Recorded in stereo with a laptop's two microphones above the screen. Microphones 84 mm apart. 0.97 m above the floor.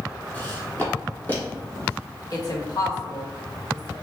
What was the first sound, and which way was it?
Footsteps, 20° left (ahead or behind).